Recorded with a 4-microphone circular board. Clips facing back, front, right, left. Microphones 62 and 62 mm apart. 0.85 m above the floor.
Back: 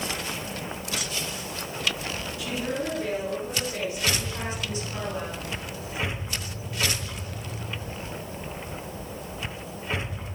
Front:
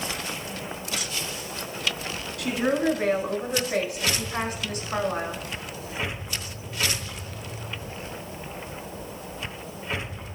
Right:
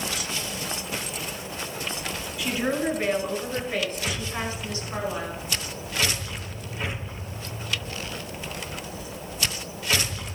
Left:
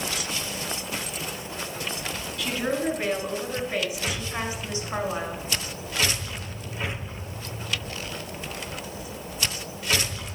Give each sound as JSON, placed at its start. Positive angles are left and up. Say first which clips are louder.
{"t": 2.4, "sound": "a woman speaking", "louder": "front 7 dB, right 1 dB", "azimuth_deg": -10, "distance_m": 5.5}